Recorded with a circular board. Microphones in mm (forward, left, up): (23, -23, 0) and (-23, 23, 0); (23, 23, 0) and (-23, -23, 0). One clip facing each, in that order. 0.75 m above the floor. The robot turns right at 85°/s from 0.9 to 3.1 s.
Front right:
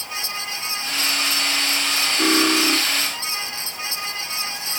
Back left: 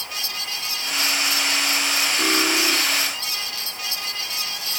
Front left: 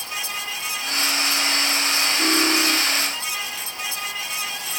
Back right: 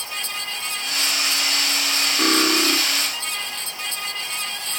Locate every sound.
2.2 s cutlery clinking: 135° right, 3.5 m; by 2.8 s 85° right, 3.5 m